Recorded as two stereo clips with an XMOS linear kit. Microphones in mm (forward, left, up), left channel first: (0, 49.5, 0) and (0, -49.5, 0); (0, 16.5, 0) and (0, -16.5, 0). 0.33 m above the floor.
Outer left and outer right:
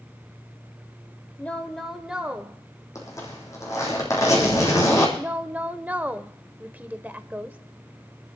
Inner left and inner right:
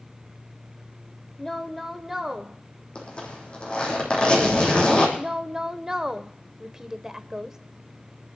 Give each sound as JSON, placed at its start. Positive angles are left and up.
{"t": 1.4, "sound": "a woman speaking", "side_deg": 15, "distance_m": 1.1}
{"t": 3.0, "sound": "a zipper", "side_deg": 30, "distance_m": 4.5}
{"t": 5.2, "sound": "a woman speaking", "side_deg": -15, "distance_m": 0.8}